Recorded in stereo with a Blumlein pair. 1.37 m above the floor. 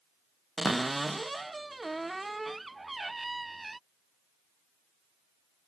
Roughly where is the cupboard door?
Ahead.